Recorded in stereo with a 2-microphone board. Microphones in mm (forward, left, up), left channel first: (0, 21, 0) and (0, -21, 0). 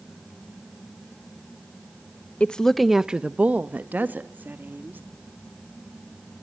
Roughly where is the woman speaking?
Left.